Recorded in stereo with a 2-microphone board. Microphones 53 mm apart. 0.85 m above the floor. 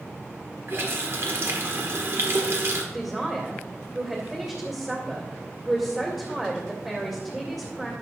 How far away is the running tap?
About 1.6 m.